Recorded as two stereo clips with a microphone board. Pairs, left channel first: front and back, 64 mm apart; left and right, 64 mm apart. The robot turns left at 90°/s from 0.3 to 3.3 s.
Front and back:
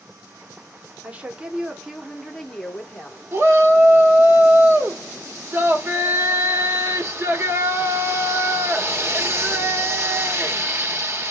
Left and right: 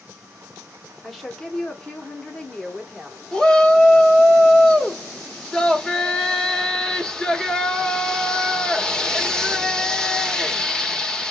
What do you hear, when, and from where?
1.0 s a woman speaking: 175° right, 0.9 m; by 3.2 s 10° right, 0.9 m
3.3 s a shout: 160° left, 0.9 m